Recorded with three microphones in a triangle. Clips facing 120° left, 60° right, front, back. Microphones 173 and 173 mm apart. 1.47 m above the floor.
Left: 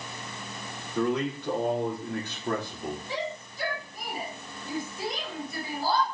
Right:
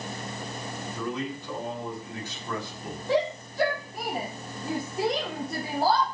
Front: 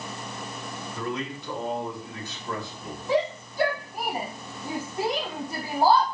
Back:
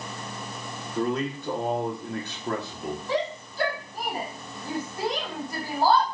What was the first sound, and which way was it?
A man speaking, 135° left.